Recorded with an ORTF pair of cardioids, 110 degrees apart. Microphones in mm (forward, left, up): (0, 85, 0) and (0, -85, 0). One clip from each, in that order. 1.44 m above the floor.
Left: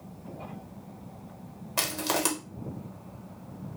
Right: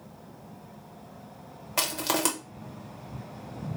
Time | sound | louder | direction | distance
1.8 | crushing | right 1 dB | 5° right | 0.8 m